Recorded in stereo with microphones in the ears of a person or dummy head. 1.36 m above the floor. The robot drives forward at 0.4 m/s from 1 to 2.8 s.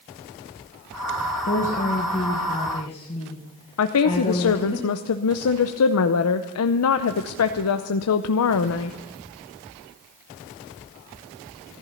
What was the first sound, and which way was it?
A woman speaking, 40° left (ahead or behind).